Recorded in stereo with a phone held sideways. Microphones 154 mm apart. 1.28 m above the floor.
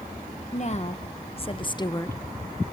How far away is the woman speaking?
About 1.5 m.